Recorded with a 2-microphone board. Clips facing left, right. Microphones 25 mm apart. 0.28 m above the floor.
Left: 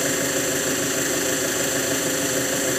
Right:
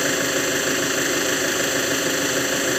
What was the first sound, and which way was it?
An engine running, 20° right (ahead or behind).